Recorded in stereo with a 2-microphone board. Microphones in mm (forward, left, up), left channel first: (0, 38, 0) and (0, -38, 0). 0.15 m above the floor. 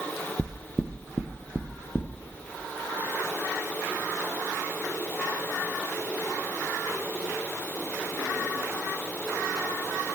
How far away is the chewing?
I don't hear chewing.